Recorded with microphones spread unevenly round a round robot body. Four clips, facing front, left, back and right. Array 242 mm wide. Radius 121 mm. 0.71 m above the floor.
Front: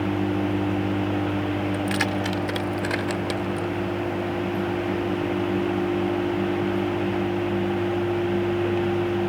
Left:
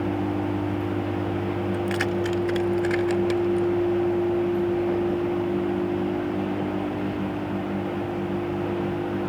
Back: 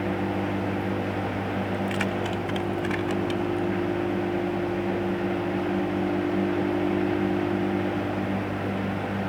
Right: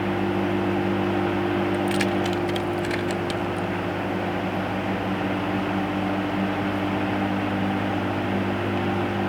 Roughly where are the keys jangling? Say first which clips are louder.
Right 2 dB, front 2 dB; ahead.